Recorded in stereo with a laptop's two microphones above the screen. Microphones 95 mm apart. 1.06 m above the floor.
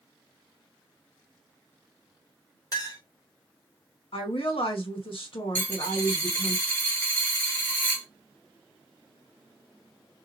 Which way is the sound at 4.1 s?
70° left (ahead or behind).